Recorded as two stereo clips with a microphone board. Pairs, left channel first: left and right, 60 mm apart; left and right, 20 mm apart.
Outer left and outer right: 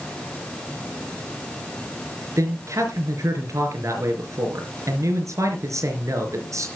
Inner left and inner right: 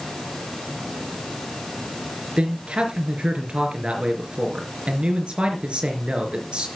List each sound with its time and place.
2.4 s a man speaking: 65° right (ahead or behind), 4 m